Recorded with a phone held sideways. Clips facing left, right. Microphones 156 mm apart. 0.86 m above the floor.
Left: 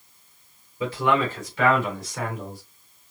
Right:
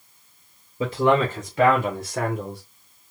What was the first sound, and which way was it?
A man speaking, 40° right (ahead or behind).